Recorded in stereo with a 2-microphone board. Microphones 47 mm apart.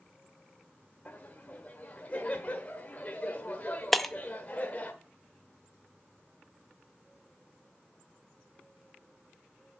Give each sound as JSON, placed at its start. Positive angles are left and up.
{"t": 1.1, "sound": "laughter", "side_deg": 35, "distance_m": 1.1}
{"t": 3.9, "sound": "breaking glass", "side_deg": 5, "distance_m": 0.7}